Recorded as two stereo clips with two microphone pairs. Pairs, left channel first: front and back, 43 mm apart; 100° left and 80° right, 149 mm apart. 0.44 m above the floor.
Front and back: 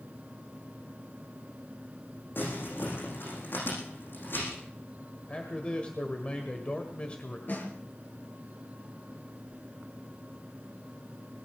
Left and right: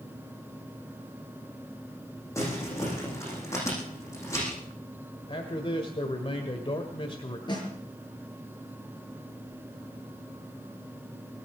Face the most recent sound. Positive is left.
turn(degrees=40)